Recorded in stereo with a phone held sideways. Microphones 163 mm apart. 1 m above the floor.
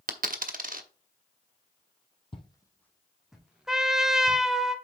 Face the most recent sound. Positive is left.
turn(degrees=-5)  # may be behind; listen again after turning